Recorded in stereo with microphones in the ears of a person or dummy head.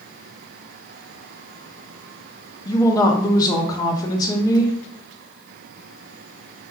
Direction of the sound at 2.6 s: 20° left (ahead or behind).